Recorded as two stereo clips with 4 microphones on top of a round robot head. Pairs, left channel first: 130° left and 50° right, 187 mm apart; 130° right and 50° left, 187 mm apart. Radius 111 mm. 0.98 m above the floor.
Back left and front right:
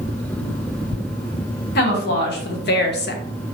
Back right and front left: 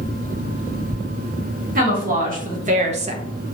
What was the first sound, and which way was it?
A woman speaking, 95° left.